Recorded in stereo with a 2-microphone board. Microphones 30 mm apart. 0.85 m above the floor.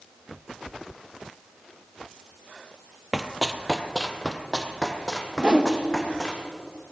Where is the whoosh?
30° right (ahead or behind), 1.0 m.